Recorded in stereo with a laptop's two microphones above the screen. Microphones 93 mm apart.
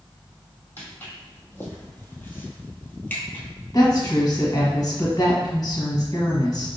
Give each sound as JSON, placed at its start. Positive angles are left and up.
{"t": 0.8, "sound": "footsteps", "side_deg": 20, "distance_m": 1.7}
{"t": 3.7, "sound": "a woman speaking", "side_deg": 45, "distance_m": 1.0}